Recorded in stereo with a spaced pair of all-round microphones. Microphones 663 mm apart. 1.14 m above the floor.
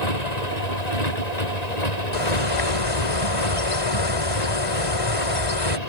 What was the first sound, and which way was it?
A motorcycle, 75° left (ahead or behind).